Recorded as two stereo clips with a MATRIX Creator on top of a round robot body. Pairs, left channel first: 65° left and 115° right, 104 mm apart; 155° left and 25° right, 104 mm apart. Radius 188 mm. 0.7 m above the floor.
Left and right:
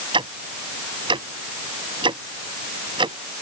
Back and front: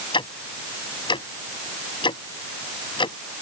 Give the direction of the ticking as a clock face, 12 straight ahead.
5 o'clock.